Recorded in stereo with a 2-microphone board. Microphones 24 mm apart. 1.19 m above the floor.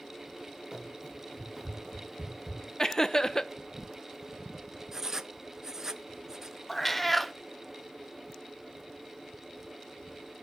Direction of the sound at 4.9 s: 20° right (ahead or behind).